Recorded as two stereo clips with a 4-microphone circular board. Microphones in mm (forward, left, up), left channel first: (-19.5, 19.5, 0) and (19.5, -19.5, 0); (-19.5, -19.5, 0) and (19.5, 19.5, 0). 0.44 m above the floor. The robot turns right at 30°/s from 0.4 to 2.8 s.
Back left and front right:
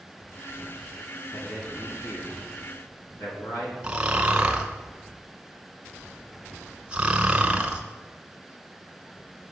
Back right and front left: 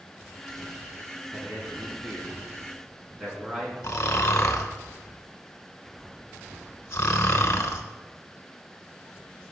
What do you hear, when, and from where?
1.3 s a man speaking: 85° left, 4 m; by 3.7 s 130° left, 4 m
3.8 s snoring: 115° right, 1.0 m